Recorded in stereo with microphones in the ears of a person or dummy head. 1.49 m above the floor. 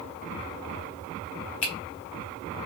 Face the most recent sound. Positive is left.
turn(degrees=30)  # may be behind; listen again after turning